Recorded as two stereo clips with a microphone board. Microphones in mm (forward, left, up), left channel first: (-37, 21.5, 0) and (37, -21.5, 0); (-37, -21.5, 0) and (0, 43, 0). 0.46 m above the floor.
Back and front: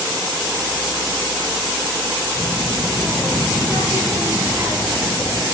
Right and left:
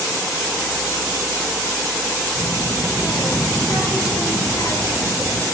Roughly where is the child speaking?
Right.